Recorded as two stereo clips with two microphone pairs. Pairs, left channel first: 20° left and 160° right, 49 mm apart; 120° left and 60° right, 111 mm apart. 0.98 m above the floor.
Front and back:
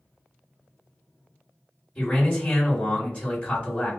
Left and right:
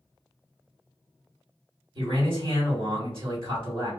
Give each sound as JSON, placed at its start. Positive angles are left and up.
{"t": 1.9, "sound": "a man speaking", "azimuth_deg": -45, "distance_m": 1.9}